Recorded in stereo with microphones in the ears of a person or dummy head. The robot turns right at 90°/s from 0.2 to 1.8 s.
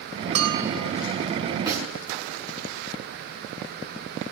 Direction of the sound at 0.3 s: 40° right.